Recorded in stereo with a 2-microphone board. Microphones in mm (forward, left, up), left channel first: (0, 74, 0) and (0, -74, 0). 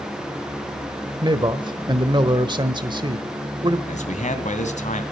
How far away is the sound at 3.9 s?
About 2 m.